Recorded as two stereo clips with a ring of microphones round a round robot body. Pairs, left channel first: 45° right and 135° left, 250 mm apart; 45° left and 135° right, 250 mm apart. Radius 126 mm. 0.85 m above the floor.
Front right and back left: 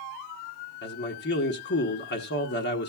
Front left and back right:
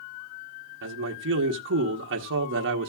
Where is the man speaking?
90° right, 1.2 m.